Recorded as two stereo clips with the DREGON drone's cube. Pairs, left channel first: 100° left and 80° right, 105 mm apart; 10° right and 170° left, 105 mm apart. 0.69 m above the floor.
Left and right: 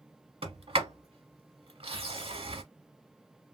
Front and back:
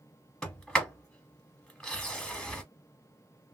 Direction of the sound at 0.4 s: 95° right.